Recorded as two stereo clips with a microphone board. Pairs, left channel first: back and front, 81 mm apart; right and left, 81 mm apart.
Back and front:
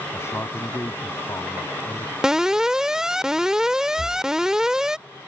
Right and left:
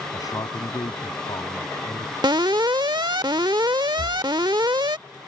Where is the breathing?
120° right.